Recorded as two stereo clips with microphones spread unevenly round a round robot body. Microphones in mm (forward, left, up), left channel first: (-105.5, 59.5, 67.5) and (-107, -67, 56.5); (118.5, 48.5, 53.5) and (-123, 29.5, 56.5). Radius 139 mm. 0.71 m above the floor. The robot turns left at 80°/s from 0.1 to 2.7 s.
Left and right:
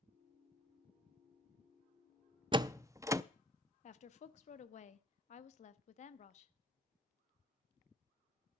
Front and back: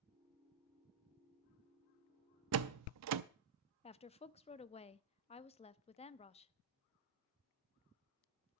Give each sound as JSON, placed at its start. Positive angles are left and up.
{"t": 2.5, "sound": "a door slam", "azimuth_deg": -145, "distance_m": 0.6}
{"t": 3.8, "sound": "a woman speaking", "azimuth_deg": 65, "distance_m": 0.8}